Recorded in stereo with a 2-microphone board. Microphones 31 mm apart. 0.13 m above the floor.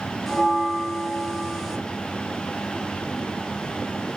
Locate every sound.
0.3 s a bell: centre (ahead or behind), 0.9 m